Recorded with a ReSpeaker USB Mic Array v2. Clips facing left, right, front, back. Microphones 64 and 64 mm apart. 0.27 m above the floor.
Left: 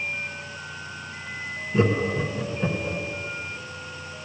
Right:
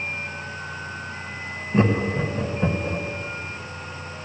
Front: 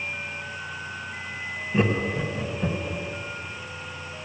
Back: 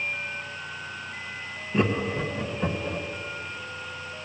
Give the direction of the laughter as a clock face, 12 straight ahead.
3 o'clock.